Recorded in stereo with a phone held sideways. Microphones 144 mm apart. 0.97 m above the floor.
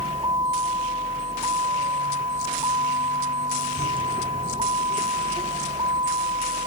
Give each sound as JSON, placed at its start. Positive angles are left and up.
{"t": 0.0, "sound": "a vehicle", "side_deg": -30}